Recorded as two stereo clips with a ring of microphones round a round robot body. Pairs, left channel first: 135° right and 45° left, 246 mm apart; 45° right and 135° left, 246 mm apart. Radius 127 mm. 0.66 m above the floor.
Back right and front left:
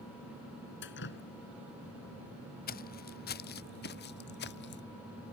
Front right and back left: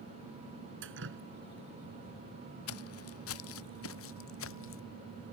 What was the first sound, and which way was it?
Dripping, straight behind.